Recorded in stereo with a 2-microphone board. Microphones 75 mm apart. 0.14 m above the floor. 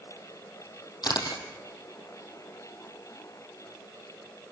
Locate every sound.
1.0 s a camera shutter: 65° left (ahead or behind), 3.5 m